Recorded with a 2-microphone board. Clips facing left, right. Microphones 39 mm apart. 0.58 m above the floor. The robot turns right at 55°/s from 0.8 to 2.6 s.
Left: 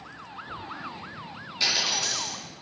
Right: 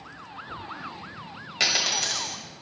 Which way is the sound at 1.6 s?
80° right.